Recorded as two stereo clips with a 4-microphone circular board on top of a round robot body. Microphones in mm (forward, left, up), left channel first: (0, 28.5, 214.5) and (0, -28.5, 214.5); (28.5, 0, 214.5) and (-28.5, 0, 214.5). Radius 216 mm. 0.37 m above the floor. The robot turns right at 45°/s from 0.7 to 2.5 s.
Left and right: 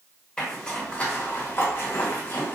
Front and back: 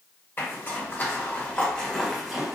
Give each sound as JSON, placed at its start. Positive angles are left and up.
{"t": 0.4, "sound": "a zipper", "azimuth_deg": 25, "distance_m": 1.3}